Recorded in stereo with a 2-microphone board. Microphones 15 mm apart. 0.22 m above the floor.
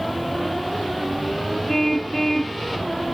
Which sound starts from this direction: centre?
A car horn, at 1.7 s.